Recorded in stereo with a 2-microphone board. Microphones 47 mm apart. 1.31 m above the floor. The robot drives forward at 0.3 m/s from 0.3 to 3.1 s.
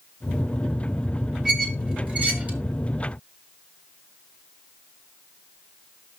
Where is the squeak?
25° right (ahead or behind), 2 m; by 2.6 s 30° right (ahead or behind), 1.8 m.